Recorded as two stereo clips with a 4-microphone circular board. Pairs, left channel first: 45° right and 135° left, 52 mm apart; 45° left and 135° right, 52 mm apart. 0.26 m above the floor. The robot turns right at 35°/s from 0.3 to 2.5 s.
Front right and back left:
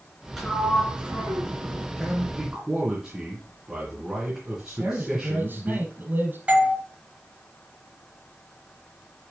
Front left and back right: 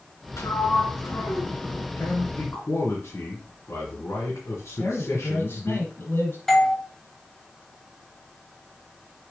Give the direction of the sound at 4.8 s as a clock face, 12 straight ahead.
9 o'clock.